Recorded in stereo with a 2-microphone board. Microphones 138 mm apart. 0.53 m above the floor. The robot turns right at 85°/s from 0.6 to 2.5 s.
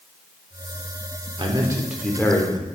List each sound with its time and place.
1.4 s a man speaking: 55° right, 1.2 m; by 2.6 s 40° left, 1.2 m